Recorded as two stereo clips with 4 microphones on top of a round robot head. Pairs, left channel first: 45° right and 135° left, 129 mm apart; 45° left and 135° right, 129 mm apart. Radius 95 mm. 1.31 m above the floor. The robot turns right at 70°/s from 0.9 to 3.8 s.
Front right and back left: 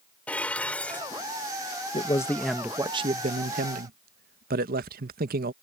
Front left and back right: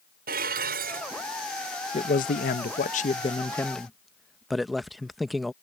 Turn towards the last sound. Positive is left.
turn(degrees=135)